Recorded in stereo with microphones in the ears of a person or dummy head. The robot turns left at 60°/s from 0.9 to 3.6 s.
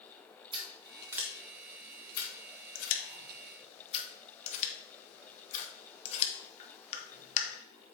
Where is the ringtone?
No ringtone in this recording.